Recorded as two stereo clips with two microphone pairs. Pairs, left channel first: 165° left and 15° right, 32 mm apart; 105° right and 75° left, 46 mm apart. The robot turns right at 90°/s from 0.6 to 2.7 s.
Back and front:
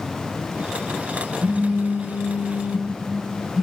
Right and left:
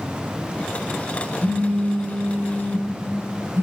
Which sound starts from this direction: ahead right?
A phone buzzing, at 1.4 s.